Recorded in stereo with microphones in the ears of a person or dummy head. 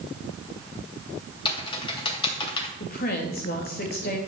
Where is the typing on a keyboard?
30° left (ahead or behind), 2.5 m.